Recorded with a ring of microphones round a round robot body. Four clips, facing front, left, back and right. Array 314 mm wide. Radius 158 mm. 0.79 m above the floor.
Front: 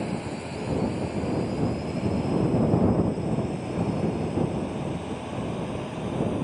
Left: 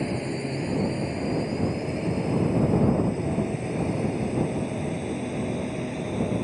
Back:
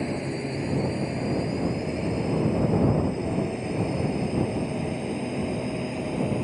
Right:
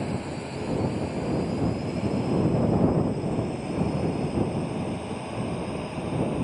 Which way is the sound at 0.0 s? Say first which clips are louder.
Left 3 dB, back 2 dB; 135° left.